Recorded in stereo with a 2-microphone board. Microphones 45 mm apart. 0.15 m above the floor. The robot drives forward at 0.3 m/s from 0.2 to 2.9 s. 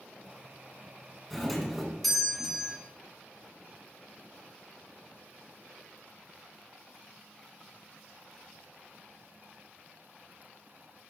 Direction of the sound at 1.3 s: 5° left (ahead or behind).